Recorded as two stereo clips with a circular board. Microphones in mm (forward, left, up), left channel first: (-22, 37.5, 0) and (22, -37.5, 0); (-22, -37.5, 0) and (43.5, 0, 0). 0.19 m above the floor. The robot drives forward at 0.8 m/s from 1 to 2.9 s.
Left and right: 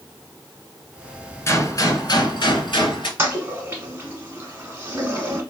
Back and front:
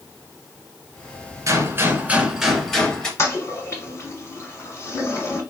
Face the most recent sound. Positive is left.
turn(degrees=-115)